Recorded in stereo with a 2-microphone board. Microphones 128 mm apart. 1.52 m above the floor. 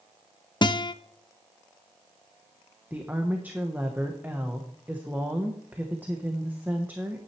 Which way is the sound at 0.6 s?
35° left (ahead or behind).